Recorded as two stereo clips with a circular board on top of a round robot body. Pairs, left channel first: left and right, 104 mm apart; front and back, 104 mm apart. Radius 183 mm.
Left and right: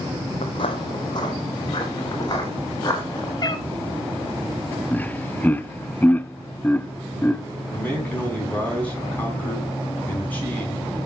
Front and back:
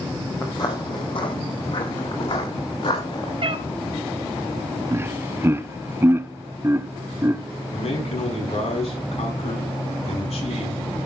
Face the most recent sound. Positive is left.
turn(degrees=15)